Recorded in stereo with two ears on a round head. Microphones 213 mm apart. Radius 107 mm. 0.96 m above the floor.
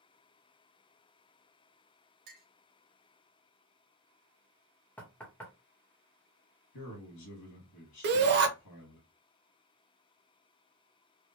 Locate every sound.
2.3 s a clink: 40° right (ahead or behind), 1.0 m
5.0 s knocking: 5° left (ahead or behind), 0.8 m
6.7 s a man speaking: 80° left, 1.4 m
8.0 s a shout: 45° right (ahead or behind), 0.8 m